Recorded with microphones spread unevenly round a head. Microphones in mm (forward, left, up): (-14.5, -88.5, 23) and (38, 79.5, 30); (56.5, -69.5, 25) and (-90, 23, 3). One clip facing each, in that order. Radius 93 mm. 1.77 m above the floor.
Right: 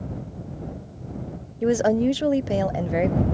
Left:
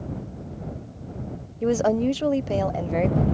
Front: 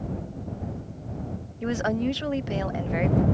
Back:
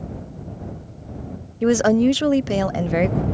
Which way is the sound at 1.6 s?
170° left.